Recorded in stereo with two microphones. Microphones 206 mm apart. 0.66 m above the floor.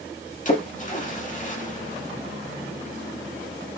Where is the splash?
40° left (ahead or behind), 1.6 m.